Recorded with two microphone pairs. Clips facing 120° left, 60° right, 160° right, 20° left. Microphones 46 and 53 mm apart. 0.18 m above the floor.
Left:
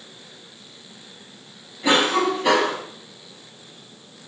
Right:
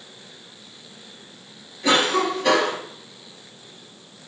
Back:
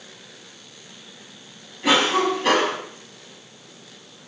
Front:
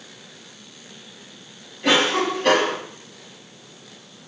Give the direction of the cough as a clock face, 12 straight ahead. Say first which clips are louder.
Left 1 dB, even; 8 o'clock.